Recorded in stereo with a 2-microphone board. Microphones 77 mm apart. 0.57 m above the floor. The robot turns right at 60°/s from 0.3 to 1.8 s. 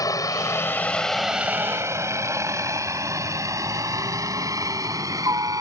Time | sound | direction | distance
0.0 | a helicopter | 50° left (ahead or behind) | ?